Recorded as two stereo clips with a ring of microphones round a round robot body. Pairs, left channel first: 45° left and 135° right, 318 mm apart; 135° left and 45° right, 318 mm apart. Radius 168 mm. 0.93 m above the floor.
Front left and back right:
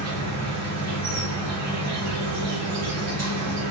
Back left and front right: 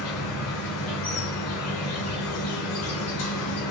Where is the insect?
Straight behind, 1.8 m.